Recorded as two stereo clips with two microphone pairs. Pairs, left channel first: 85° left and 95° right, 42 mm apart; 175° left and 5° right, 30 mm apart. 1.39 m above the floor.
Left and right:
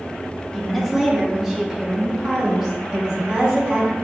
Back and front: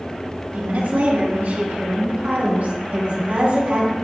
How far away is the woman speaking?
About 1.7 m.